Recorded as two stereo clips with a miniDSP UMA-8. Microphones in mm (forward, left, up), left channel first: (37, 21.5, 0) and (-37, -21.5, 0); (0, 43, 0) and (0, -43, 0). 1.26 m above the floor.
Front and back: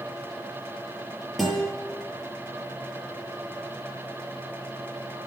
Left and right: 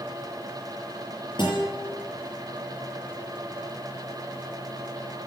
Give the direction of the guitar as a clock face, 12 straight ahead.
8 o'clock.